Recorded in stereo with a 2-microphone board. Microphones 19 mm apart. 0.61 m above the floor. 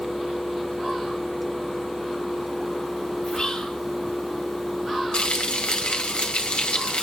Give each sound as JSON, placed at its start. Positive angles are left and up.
{"t": 3.2, "sound": "whispering", "side_deg": 50, "distance_m": 2.0}
{"t": 5.1, "sound": "frying", "side_deg": 75, "distance_m": 2.5}